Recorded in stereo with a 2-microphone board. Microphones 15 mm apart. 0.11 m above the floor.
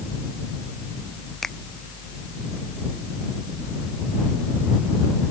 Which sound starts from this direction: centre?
A finger snap, at 1.4 s.